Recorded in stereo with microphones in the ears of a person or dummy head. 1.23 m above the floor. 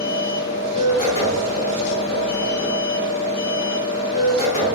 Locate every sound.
0.0 s a machine running: 35° left (ahead or behind), 1.5 m